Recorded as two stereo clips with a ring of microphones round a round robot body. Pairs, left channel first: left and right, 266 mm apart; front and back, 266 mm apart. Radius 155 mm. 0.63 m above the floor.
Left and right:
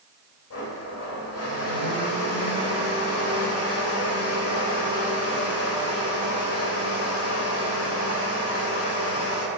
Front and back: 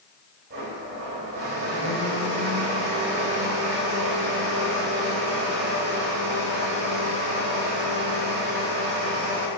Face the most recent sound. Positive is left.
turn(degrees=125)